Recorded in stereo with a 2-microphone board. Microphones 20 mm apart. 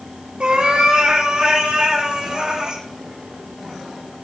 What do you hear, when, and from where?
0.4 s a cat meowing: 50° right (ahead or behind), 2.5 m; by 2.8 s 40° right (ahead or behind), 4 m